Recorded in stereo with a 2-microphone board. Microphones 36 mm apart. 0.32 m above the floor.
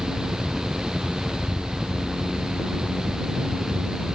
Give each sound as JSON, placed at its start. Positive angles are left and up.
{"t": 0.0, "sound": "a helicopter", "side_deg": 15}